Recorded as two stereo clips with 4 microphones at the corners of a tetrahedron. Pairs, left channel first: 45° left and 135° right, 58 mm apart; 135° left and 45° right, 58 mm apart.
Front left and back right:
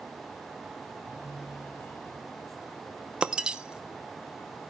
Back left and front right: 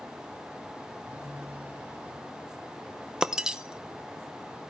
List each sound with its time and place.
1.1 s a phone buzzing: 20° left, 4 m
3.2 s breaking glass: 100° right, 0.6 m